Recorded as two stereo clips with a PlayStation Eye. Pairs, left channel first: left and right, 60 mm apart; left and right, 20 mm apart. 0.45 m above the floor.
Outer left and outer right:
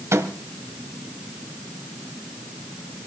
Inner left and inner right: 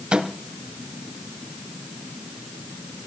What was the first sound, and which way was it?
A microwave, 55° right (ahead or behind).